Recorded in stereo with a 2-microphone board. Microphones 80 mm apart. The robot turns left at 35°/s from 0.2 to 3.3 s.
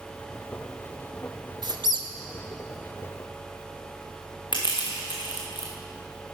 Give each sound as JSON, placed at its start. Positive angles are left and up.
{"t": 1.6, "sound": "a squeak", "side_deg": -65, "distance_m": 0.7}
{"t": 4.5, "sound": "crushing", "side_deg": 80, "distance_m": 2.5}